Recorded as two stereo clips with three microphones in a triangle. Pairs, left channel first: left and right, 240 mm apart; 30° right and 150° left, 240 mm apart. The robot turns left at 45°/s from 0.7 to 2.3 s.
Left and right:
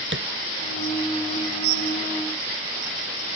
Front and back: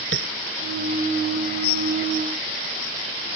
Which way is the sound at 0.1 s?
60° right.